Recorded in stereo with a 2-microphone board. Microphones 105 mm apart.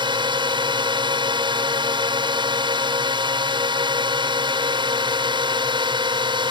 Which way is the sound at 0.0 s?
50° right (ahead or behind).